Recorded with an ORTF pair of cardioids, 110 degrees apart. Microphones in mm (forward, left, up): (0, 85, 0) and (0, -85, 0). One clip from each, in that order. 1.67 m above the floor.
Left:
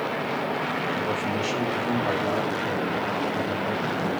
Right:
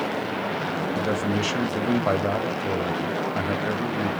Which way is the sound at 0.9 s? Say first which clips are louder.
Right 1 dB; 35° right.